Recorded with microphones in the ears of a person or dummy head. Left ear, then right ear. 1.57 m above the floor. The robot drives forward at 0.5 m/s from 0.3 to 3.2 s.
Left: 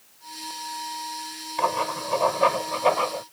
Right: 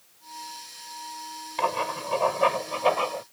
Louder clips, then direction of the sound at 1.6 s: Left 2 dB; 10° right (ahead or behind).